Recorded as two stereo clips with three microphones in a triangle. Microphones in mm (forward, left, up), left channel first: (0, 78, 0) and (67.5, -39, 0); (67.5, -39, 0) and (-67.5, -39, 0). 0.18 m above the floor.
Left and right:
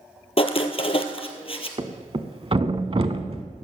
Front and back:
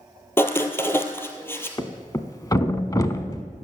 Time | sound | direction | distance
0.4 | writing | 70° left | 1.1 m
1.8 | a thud | 50° right | 0.8 m